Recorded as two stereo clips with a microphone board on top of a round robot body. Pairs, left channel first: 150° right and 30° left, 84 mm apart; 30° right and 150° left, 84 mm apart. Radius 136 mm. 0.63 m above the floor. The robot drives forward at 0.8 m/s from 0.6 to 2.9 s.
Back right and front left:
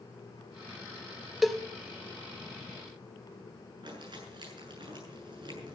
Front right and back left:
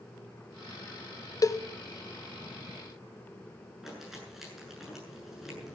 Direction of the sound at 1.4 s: 60° right.